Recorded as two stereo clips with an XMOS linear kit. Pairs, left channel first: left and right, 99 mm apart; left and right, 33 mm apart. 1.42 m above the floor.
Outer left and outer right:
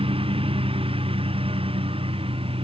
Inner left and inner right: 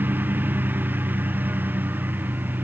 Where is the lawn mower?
75° right (ahead or behind).